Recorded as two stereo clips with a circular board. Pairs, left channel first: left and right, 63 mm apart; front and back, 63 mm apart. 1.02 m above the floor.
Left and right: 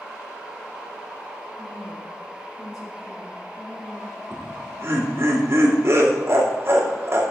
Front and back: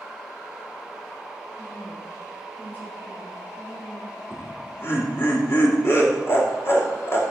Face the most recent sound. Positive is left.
turn(degrees=-40)